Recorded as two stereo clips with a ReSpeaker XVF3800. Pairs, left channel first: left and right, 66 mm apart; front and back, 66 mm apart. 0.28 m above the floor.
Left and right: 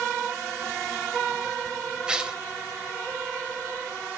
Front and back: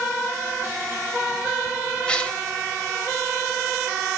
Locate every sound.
2.1 s tearing paper: 40° right, 1.0 m